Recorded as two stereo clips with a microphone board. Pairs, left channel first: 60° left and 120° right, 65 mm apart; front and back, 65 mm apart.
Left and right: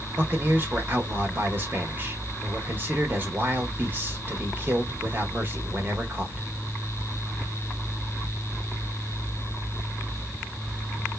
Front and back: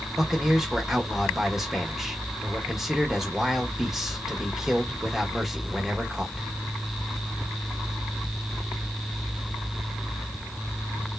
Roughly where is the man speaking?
Right.